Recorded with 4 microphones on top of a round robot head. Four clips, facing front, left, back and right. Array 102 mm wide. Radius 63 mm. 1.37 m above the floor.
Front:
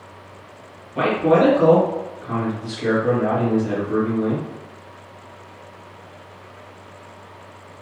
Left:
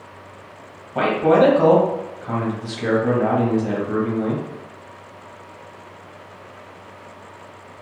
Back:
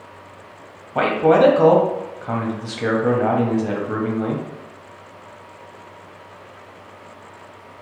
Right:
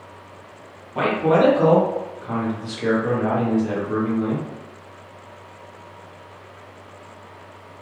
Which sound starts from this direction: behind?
A man speaking, at 0.9 s.